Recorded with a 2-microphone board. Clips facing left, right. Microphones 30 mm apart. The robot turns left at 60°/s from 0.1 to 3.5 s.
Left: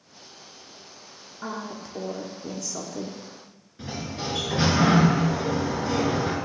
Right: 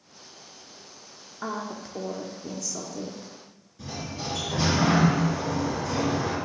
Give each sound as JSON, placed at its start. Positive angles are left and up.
{"t": 1.4, "sound": "a woman speaking", "azimuth_deg": -135, "distance_m": 0.7}
{"t": 3.8, "sound": "a sliding door", "side_deg": 35, "distance_m": 2.0}